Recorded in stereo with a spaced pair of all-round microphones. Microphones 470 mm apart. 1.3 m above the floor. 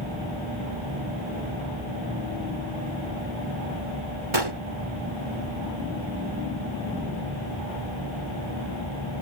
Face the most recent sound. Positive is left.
turn(degrees=-75)  # may be behind; listen again after turning